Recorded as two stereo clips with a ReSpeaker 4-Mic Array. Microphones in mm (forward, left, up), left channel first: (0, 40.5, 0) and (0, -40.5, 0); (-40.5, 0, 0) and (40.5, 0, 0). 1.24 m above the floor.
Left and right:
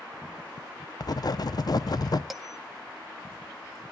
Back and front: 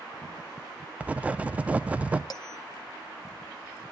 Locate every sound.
1.0 s writing: 70° left, 0.6 m
2.3 s a bell: 175° right, 1.2 m